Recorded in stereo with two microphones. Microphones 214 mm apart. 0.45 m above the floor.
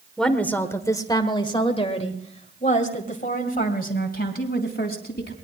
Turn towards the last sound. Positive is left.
turn(degrees=55)  # may be behind; listen again after turning